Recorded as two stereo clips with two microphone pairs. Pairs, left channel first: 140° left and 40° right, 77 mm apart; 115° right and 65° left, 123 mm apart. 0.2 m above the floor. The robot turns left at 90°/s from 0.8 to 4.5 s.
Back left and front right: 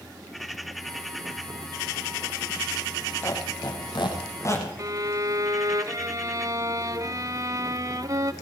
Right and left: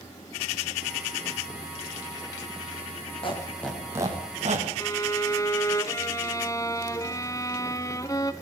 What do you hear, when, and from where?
3.2 s a squeak: 160° right, 6.5 m; by 4.7 s 90° left, 6.5 m
4.8 s a violin: 60° right, 1.1 m